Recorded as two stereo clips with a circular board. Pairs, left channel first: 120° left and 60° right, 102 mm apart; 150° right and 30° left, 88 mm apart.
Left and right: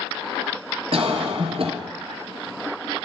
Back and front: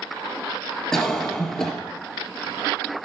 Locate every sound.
0.9 s a cough: 65° right, 3 m